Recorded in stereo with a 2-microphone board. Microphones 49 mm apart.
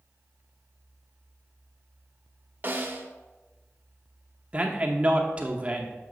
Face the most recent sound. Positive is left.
turn(degrees=-25)  # may be behind; listen again after turning